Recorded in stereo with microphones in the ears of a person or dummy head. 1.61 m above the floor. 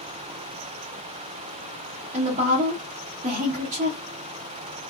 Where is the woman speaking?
35° right (ahead or behind), 0.8 m.